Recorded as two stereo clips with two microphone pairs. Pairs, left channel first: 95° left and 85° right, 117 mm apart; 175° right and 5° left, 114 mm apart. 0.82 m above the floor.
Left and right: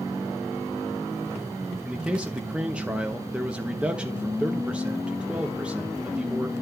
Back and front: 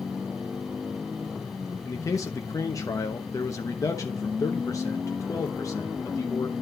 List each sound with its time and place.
1.9 s a man speaking: 155° right, 0.9 m